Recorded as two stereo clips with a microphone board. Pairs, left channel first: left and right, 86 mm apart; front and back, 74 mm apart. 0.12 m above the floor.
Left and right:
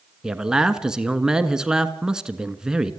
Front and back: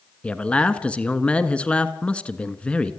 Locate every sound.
0.2 s a man speaking: 25° right, 1.2 m